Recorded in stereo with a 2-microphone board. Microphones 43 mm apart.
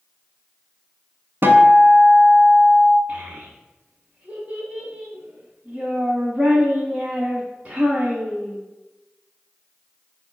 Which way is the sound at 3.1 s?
35° right (ahead or behind).